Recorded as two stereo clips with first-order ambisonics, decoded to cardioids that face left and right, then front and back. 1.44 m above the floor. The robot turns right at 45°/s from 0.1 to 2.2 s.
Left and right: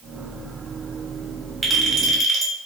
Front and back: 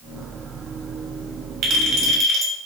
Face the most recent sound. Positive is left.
turn(degrees=-140)